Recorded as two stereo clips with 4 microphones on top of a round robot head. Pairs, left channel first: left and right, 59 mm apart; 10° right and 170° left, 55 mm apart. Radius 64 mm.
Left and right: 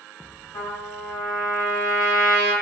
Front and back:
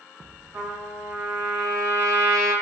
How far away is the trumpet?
About 1.9 m.